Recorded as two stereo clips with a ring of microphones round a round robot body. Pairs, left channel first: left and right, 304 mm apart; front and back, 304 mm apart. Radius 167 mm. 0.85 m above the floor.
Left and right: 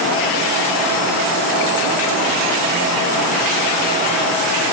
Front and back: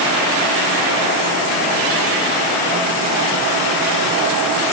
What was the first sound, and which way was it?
Only background noise.